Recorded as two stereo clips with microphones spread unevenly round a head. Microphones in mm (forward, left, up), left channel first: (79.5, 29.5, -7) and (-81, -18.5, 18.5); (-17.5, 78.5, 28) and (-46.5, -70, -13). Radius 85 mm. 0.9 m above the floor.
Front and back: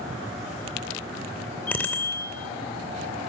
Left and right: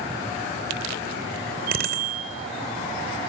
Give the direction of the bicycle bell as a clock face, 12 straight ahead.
2 o'clock.